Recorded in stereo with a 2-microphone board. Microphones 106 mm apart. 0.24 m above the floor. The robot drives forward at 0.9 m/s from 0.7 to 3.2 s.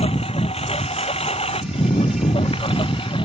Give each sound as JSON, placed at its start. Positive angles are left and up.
{"t": 0.0, "sound": "a lawn mower", "side_deg": 85}